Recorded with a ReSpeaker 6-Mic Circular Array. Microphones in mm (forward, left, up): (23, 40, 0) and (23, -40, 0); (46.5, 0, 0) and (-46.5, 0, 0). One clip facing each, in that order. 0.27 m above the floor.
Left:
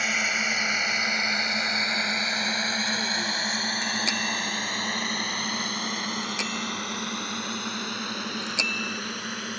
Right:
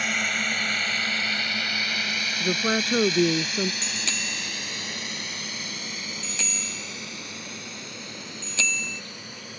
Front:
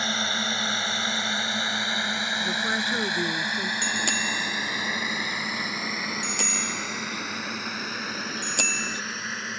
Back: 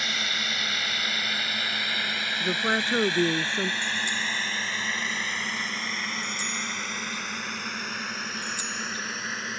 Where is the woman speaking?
120° right.